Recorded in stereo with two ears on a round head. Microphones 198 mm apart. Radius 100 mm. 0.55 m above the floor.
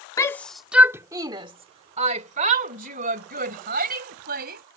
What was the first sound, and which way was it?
A shout, 15° left (ahead or behind).